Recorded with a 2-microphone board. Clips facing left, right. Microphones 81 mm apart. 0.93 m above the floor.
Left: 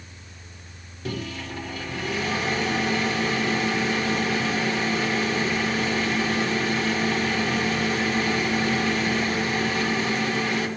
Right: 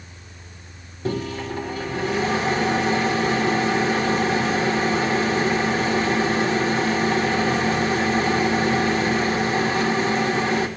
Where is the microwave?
30° right (ahead or behind), 1.2 m.